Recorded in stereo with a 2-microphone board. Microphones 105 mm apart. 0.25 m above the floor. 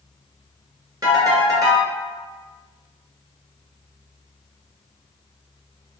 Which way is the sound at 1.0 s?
35° right (ahead or behind).